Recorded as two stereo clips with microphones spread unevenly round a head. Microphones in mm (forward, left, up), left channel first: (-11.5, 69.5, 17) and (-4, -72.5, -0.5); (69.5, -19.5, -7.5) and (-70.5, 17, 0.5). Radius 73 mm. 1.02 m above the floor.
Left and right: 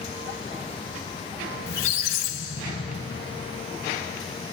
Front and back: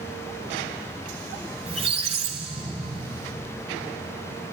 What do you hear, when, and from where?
1.7 s a squeak: 120° left, 1.9 m